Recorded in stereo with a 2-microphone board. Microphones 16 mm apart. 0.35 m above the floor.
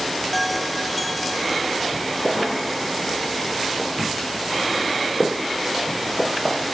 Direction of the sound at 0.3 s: 5° left (ahead or behind).